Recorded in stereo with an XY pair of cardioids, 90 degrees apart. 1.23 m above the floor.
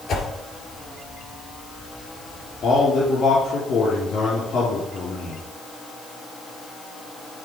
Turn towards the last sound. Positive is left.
turn(degrees=65)